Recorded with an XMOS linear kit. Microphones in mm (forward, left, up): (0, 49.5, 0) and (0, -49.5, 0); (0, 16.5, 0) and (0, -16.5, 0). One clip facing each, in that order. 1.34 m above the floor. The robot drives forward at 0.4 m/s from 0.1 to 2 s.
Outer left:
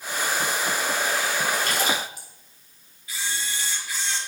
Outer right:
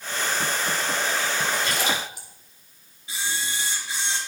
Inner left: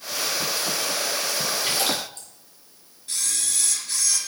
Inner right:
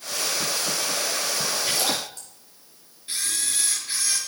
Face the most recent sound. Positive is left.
turn(degrees=-25)  # may be behind; listen again after turning